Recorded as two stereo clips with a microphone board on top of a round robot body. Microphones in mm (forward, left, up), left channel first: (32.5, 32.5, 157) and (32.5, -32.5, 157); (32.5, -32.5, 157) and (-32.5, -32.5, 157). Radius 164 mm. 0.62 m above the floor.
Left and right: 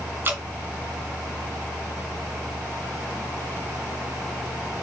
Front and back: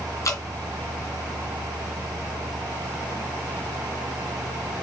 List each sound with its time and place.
0.2 s dripping: 35° right, 2.5 m